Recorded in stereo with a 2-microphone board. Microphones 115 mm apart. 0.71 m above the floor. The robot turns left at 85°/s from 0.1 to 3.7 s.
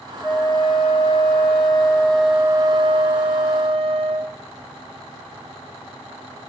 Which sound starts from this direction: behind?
A flute, at 0.2 s.